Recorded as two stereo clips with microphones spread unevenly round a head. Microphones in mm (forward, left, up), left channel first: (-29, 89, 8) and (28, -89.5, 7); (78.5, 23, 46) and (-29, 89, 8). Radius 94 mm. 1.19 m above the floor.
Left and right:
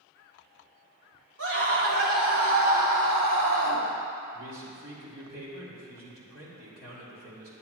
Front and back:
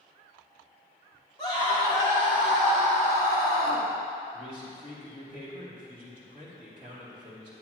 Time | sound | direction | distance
1.4 | a scream | 100° right | 3 m
4.3 | a man speaking | 90° right | 3.5 m